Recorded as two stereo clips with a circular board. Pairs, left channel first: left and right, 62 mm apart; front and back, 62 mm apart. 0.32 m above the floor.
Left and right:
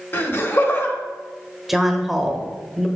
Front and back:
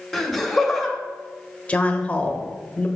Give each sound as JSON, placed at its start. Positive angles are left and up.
{"t": 0.1, "sound": "laughter", "azimuth_deg": 80, "distance_m": 1.1}
{"t": 1.7, "sound": "a woman speaking", "azimuth_deg": -5, "distance_m": 0.9}